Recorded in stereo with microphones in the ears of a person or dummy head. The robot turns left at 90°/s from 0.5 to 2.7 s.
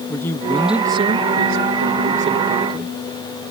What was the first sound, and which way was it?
A man speaking, 20° left.